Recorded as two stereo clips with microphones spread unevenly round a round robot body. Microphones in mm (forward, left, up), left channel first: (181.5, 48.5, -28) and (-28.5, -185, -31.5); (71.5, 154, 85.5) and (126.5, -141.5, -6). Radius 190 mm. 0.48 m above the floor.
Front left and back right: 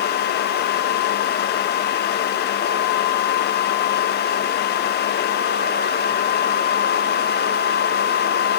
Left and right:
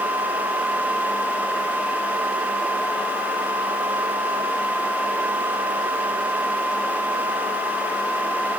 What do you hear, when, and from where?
Only background noise.